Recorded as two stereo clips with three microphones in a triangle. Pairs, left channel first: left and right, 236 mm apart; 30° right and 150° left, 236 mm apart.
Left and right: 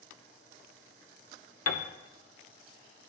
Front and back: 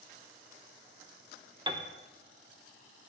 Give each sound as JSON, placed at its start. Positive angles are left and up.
{"t": 1.7, "sound": "a piano", "azimuth_deg": 80, "distance_m": 0.6}